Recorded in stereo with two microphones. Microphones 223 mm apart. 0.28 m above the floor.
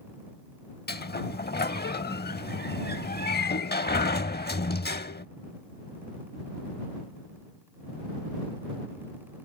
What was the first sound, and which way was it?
A sliding door, 45° left (ahead or behind).